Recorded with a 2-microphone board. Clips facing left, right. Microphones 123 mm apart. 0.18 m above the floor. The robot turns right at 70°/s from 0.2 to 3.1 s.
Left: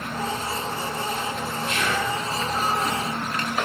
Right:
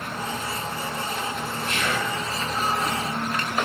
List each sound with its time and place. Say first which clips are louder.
1.6 s whispering: left 2 dB; 60° right, 3 m; by 2.1 s 30° right, 3 m